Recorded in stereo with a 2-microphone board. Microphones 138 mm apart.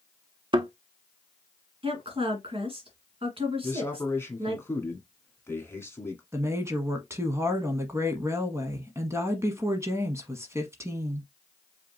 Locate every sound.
0.5 s a thud: 35° right (ahead or behind), 0.5 m
1.8 s a woman speaking: 45° right (ahead or behind), 2 m
3.6 s a man speaking: 20° left (ahead or behind), 1.4 m
6.3 s a woman speaking: 20° right (ahead or behind), 1.0 m